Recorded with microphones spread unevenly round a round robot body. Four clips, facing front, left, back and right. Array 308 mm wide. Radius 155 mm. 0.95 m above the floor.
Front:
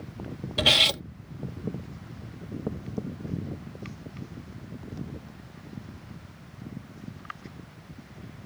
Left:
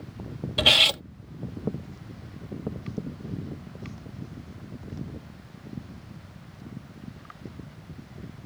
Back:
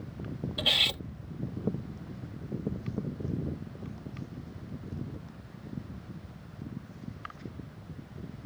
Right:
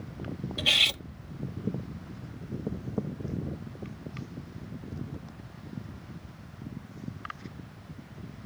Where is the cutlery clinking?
30° left.